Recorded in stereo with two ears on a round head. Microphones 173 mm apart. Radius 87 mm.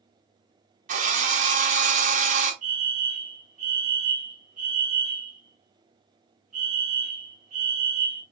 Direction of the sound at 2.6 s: 40° right (ahead or behind).